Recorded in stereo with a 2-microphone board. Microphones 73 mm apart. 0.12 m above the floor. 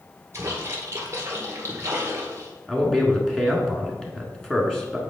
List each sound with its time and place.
0.3 s a splash: 35° right (ahead or behind), 2 m
2.7 s a man speaking: 10° left (ahead or behind), 1.4 m